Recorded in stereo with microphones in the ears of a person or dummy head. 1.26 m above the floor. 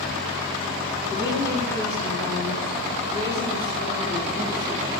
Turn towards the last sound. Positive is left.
turn(degrees=25)  # may be behind; listen again after turning